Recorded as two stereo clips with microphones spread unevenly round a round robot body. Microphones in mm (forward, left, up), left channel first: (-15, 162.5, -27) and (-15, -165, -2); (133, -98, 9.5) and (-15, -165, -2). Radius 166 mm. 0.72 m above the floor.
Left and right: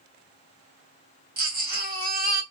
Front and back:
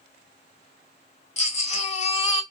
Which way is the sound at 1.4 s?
25° right.